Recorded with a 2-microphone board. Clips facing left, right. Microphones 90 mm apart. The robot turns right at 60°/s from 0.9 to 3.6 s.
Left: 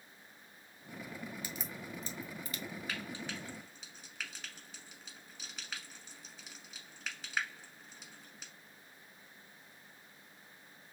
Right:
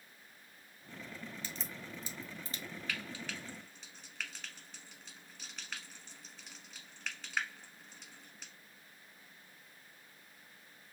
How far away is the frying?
About 1.4 m.